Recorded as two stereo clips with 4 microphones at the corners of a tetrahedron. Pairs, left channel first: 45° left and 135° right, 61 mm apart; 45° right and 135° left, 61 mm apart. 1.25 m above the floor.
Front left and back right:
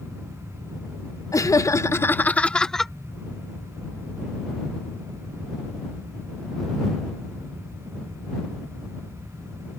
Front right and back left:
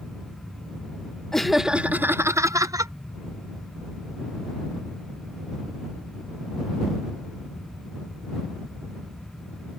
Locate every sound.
1.3 s laughter: 40° left; by 2.9 s 130° left